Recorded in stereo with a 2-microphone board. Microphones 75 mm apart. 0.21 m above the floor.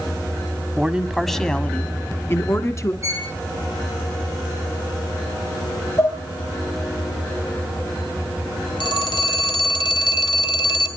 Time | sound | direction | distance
0.8 | a man speaking | 15° right (ahead or behind) | 1.6 m
3.0 | a violin | 40° right (ahead or behind) | 6 m
6.0 | dishes clattering | 35° left (ahead or behind) | 3.5 m
8.8 | a phone ringing | 70° left (ahead or behind) | 2.5 m